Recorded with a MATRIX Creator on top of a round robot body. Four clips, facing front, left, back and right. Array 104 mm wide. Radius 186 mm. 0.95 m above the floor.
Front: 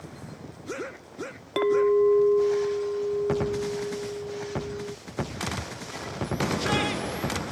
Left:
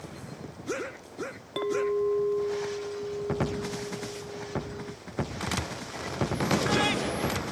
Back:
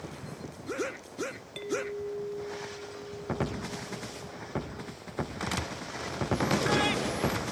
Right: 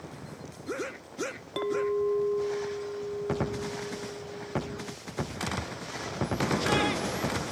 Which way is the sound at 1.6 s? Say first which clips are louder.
Left 1 dB, front 14 dB; straight ahead.